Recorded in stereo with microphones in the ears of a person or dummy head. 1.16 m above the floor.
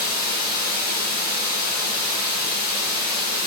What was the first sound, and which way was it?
Running water, 35° left (ahead or behind).